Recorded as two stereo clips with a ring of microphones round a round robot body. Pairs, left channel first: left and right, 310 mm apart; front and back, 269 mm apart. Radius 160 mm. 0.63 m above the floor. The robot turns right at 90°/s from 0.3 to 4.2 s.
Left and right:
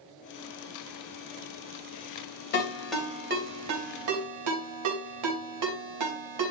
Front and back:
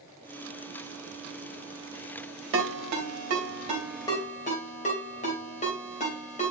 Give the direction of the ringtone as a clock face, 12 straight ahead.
7 o'clock.